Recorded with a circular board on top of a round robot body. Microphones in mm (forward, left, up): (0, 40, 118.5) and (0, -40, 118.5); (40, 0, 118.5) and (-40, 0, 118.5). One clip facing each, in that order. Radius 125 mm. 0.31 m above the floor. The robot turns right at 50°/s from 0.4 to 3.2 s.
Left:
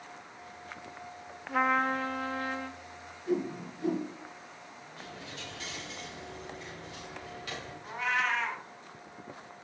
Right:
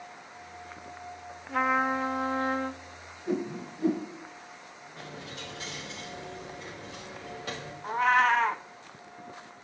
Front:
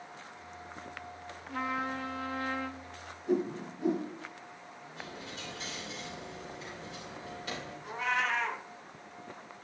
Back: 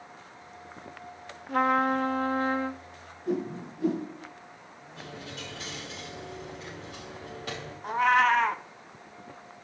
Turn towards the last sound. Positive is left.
turn(degrees=-140)